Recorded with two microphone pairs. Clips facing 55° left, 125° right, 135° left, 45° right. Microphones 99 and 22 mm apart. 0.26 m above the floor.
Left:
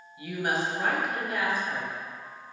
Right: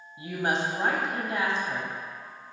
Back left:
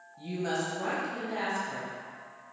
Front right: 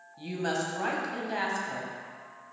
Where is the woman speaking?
80° right, 1.5 m.